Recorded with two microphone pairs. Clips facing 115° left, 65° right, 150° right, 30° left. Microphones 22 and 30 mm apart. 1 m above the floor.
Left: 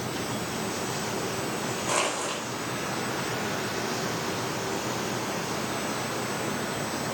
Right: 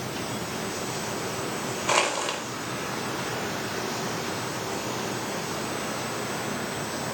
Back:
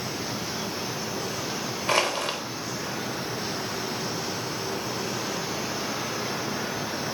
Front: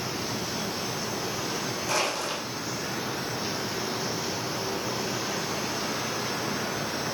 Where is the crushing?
110° right, 4 m.